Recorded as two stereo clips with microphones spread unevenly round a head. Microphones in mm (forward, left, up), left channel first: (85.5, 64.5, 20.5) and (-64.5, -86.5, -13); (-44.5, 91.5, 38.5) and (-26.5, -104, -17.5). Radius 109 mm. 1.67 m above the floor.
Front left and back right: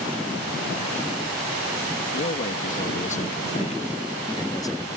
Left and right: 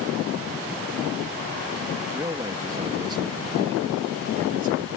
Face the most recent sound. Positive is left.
turn(degrees=-30)